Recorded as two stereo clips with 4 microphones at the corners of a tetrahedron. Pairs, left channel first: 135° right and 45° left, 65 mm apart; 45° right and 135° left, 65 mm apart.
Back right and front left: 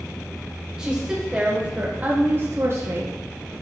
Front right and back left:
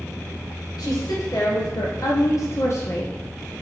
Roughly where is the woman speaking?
Ahead right.